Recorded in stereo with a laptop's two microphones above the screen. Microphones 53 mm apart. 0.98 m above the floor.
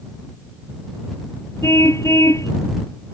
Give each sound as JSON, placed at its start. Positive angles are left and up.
{"t": 1.6, "sound": "a car horn", "side_deg": 70}